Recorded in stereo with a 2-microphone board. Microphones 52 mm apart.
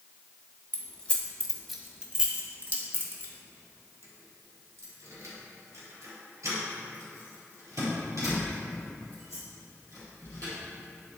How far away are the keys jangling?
About 1.2 m.